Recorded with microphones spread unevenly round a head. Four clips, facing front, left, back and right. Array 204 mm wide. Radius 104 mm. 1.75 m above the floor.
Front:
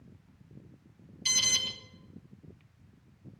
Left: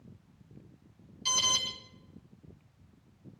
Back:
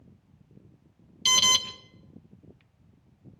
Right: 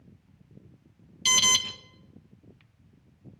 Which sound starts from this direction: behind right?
An alarm, at 1.2 s.